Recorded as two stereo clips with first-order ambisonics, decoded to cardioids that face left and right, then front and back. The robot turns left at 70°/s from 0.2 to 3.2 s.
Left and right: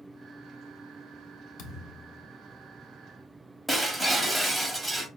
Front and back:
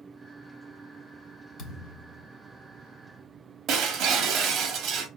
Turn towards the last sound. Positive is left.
turn(degrees=-175)